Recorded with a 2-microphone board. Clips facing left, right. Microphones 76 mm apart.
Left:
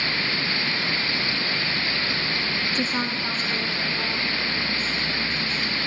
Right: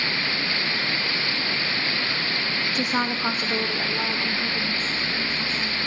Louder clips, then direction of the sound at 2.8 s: Right 4 dB; 10° right (ahead or behind).